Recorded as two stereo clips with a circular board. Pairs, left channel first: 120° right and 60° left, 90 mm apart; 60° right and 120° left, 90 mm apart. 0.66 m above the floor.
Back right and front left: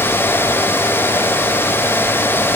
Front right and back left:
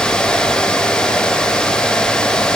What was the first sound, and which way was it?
Only background noise.